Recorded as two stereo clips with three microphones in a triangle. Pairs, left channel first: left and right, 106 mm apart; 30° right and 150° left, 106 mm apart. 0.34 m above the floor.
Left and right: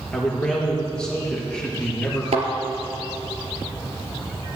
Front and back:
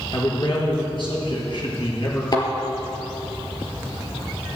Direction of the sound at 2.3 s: 80° right.